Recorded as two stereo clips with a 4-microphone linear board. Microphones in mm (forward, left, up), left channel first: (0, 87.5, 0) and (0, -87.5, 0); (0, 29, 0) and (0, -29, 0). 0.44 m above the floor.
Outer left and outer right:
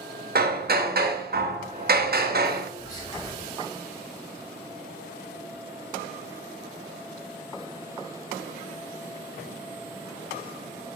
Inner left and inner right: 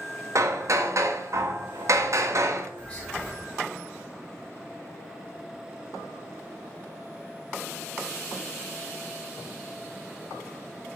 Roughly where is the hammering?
Right.